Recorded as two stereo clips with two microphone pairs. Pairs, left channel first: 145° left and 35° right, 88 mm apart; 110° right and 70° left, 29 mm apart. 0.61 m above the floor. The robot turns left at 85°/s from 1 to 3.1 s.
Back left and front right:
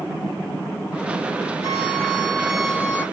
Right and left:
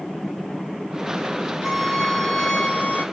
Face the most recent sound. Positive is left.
turn(degrees=-120)